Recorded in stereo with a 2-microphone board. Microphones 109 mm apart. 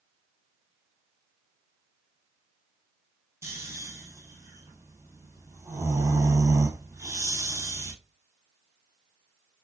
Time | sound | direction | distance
3.4 | snoring | 25° right (ahead or behind) | 1.1 m